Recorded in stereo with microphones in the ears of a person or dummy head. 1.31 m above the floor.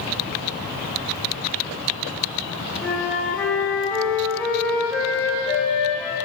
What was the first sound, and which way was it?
A flute, 5° left (ahead or behind).